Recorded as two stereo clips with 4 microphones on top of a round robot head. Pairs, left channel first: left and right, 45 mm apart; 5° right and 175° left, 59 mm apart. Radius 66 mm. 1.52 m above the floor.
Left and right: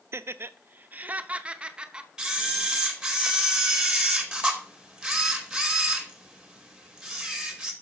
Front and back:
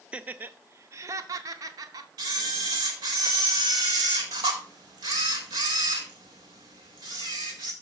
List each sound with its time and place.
0.1 s laughter: 110° right, 0.6 m; by 2.1 s 160° right, 1.3 m
2.2 s a camera shutter: 165° right, 2.5 m